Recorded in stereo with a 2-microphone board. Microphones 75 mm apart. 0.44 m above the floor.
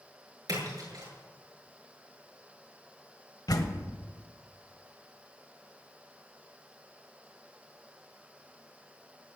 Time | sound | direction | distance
0.5 | a splash | 55° right (ahead or behind) | 8 m
3.5 | a door slam | 55° left (ahead or behind) | 1.5 m